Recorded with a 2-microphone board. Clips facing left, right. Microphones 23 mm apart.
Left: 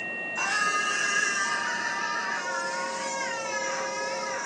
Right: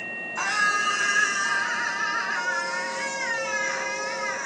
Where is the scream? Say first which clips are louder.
Right 3 dB; 20° right (ahead or behind), 3 m; by 4.5 s 45° right (ahead or behind), 5 m.